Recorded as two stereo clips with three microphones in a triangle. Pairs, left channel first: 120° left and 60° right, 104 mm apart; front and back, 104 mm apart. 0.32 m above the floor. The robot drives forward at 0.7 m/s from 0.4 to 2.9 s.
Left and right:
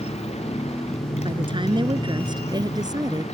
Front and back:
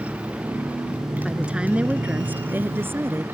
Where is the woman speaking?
95° right; by 3.2 s 110° right.